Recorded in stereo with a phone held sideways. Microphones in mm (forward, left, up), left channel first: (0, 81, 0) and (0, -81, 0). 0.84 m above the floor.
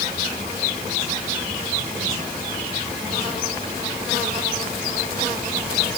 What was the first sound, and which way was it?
Only background noise.